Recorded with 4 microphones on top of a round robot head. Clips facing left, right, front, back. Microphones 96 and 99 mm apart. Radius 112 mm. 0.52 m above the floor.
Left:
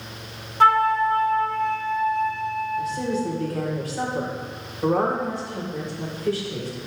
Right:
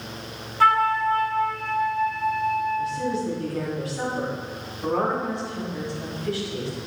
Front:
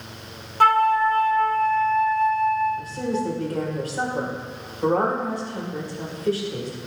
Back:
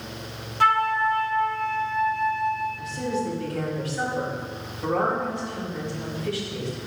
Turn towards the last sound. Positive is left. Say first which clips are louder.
# even, front 2 dB
turn(degrees=45)